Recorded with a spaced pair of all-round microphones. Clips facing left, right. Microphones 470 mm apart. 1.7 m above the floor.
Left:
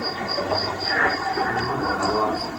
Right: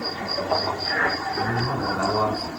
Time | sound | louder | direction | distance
1.4 | a man speaking | left 1 dB | 65° right (ahead or behind) | 5.5 m